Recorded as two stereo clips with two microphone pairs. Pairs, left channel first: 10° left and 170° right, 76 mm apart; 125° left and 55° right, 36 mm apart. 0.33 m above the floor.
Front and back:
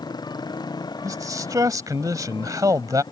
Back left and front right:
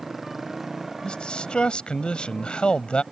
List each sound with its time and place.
0.0 s a motorcycle: 30° left
1.0 s a man speaking: 175° left